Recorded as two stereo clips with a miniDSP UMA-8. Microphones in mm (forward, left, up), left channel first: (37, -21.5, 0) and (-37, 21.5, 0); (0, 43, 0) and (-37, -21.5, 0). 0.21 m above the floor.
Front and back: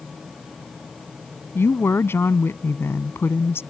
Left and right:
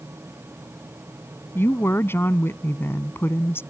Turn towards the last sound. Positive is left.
turn(degrees=20)